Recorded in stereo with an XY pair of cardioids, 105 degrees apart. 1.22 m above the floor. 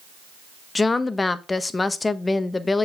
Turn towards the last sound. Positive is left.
turn(degrees=25)